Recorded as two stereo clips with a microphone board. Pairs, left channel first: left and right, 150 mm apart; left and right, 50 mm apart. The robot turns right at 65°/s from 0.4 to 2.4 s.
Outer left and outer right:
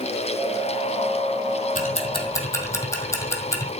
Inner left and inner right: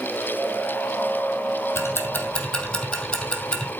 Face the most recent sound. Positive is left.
turn(degrees=20)  # may be behind; listen again after turning